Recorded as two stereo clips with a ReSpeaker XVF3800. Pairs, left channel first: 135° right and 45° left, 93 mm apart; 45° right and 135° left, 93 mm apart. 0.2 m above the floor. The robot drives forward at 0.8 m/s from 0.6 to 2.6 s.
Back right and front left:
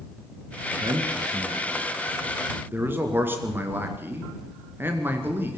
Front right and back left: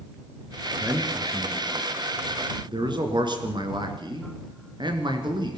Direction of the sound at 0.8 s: 75° left.